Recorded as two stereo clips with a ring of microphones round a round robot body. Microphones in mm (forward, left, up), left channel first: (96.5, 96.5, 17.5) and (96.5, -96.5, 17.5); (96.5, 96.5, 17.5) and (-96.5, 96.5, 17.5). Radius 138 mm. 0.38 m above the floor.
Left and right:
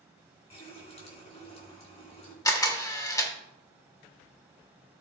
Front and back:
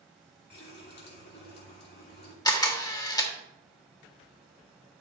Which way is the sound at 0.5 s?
30° left.